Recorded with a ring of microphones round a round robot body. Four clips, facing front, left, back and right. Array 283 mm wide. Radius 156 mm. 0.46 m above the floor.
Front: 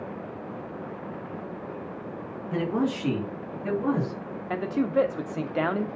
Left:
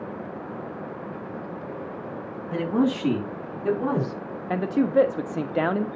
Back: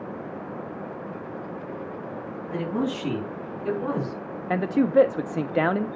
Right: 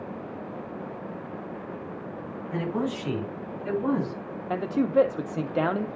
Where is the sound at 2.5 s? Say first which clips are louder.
Left 6 dB, front 1 dB; 65° left, 5 m; by 4.2 s 90° left, 4 m.